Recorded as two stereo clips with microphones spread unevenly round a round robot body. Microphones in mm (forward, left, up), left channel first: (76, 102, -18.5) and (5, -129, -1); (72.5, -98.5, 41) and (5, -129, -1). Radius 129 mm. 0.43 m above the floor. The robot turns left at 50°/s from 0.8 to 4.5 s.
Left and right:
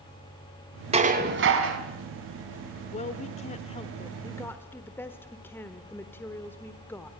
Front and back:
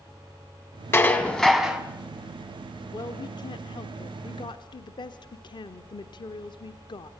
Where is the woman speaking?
85° left, 1.1 m; by 7.1 s 5° left, 1.1 m.